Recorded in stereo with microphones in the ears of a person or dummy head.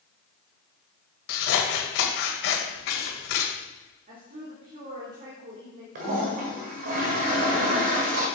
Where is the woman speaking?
50° right (ahead or behind), 2.5 m.